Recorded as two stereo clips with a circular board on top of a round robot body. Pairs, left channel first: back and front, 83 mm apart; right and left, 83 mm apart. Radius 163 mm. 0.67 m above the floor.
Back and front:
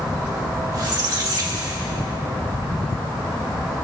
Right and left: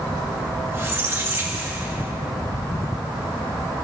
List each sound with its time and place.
0.7 s a squeak: 35° left, 2 m